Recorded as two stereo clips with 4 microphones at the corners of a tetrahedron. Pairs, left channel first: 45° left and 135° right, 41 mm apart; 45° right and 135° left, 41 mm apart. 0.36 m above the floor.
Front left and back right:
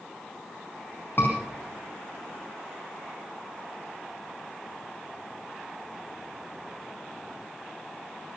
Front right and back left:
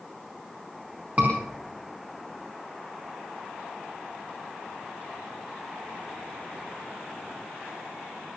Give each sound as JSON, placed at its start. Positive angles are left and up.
{"t": 1.2, "sound": "a scream", "azimuth_deg": 85, "distance_m": 4.0}